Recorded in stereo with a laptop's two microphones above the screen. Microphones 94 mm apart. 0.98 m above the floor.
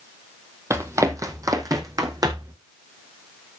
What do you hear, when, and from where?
0.7 s running footsteps: 30° right (ahead or behind), 2 m; by 2.5 s 45° right (ahead or behind), 4 m